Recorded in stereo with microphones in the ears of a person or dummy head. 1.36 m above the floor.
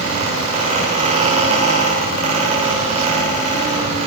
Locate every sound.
0.0 s a fan: 35° right (ahead or behind), 8 m